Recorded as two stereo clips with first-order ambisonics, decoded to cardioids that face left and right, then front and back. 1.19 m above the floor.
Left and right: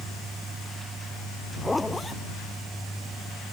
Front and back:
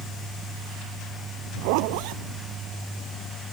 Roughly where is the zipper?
Behind.